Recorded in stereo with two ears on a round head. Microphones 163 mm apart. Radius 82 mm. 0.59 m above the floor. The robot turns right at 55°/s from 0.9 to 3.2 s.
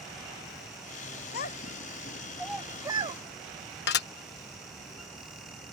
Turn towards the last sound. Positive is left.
turn(degrees=60)  # may be behind; listen again after turning